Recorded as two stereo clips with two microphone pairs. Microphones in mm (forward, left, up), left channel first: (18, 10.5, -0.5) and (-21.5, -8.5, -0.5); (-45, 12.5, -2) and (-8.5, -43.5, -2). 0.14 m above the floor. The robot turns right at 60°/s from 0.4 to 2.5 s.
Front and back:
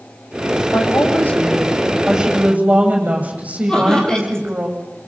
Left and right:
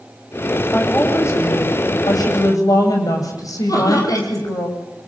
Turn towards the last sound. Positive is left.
turn(degrees=100)